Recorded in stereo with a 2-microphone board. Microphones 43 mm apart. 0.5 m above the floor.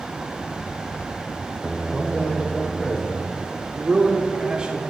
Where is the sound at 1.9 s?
25° left (ahead or behind), 1.2 m.